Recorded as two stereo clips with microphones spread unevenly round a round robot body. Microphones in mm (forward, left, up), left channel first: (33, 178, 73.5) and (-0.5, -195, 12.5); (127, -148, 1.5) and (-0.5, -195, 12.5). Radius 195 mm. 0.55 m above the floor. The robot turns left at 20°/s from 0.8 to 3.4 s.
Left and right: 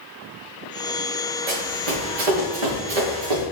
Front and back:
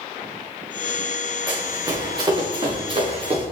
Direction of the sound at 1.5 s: 95° right.